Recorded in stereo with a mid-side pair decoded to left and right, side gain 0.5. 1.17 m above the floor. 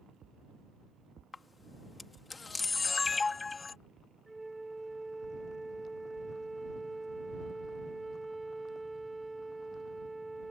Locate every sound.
1.3 s a camera shutter: 30° left
4.3 s a flute: 10° right